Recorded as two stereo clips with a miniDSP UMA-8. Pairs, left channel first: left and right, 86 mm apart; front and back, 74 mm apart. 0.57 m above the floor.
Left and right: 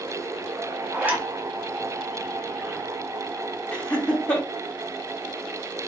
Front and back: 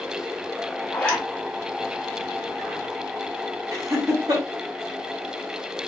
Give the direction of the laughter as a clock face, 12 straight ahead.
7 o'clock.